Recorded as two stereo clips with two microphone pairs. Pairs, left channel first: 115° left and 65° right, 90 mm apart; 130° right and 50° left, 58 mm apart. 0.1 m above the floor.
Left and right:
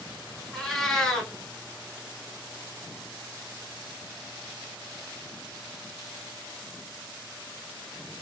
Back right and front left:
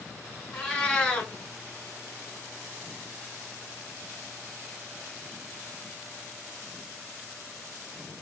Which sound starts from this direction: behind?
A cat meowing, at 0.5 s.